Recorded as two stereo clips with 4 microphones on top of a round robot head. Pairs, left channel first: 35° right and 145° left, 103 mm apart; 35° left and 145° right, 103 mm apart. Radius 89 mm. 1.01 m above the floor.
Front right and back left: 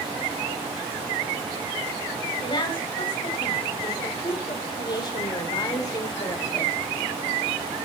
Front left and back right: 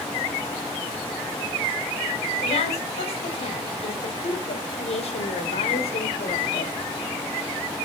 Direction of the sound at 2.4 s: 10° left.